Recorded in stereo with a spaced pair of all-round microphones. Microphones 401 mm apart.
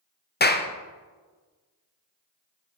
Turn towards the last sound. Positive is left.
turn(degrees=25)  # may be behind; listen again after turning